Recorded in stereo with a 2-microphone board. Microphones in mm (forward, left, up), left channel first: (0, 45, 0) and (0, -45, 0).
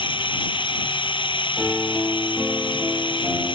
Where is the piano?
5° left (ahead or behind).